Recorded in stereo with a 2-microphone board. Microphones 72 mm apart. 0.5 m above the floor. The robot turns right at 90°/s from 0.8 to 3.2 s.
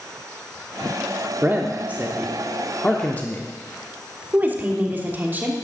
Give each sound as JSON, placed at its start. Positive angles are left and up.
{"t": 1.4, "sound": "a man speaking", "side_deg": -30, "distance_m": 0.8}
{"t": 4.3, "sound": "a woman speaking", "side_deg": -30, "distance_m": 1.2}